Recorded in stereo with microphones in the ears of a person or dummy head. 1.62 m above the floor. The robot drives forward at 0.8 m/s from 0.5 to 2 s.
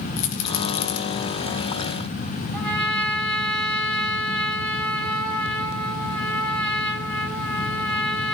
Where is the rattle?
65° left (ahead or behind), 2 m; by 1.0 s 75° left (ahead or behind), 1.9 m.